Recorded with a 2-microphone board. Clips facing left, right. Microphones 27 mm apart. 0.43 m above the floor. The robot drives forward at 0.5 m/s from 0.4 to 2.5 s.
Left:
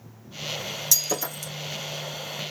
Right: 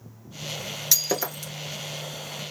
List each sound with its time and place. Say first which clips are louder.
0.9 s breaking glass: right 1 dB; 30° right (ahead or behind), 1.4 m; by 1.5 s 25° right (ahead or behind), 1.7 m